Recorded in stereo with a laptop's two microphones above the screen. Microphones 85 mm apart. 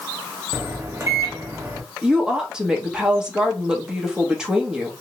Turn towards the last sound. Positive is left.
turn(degrees=-10)  # may be behind; listen again after turning